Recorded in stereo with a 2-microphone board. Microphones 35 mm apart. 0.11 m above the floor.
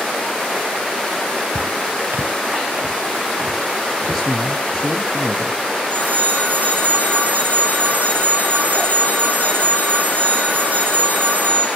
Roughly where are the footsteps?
Right.